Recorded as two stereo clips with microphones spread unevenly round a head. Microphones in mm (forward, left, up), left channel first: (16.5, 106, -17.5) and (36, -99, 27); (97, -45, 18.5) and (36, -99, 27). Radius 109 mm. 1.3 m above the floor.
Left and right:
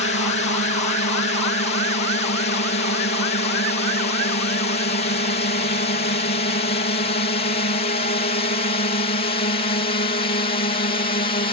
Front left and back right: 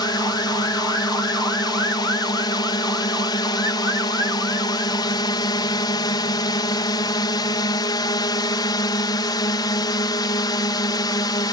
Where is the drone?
60° left; by 11.5 s 50° left.